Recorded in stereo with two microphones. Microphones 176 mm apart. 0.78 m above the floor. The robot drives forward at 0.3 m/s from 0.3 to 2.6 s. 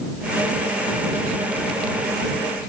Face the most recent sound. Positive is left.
No sound to turn to.